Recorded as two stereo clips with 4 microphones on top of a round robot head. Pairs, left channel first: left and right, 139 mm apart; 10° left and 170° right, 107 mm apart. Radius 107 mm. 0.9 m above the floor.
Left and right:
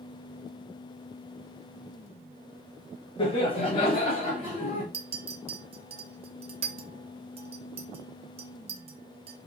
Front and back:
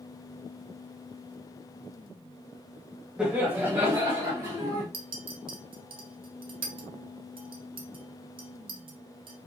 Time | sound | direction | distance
3.2 | laughter | 110° left | 0.9 m
4.9 | a clink | 135° right | 0.6 m